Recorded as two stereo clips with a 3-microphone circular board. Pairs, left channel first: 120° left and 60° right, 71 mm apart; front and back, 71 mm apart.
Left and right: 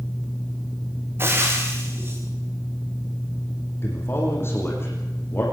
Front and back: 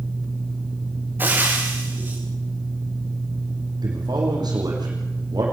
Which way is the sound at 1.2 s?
115° right.